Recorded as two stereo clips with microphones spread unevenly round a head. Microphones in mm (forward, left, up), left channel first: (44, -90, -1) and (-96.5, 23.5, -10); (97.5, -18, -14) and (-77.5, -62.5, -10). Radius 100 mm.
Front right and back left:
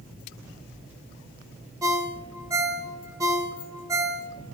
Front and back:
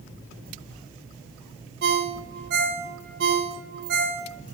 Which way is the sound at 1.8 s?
145° right.